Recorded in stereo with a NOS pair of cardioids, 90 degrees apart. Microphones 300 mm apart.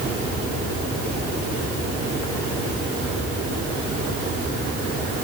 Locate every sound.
Only background noise.